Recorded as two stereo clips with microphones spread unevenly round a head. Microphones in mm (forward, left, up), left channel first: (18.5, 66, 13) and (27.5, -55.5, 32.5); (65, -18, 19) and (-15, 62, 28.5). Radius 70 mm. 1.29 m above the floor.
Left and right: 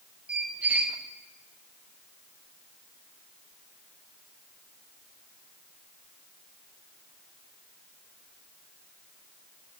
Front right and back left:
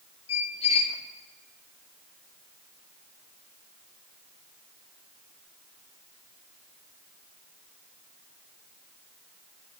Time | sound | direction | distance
0.3 | a squeak | 10° right | 1.2 m